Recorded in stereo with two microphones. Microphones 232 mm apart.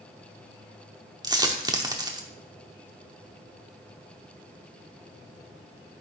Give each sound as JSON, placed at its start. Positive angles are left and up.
{"t": 1.2, "sound": "a dropped coin", "side_deg": -15, "distance_m": 0.8}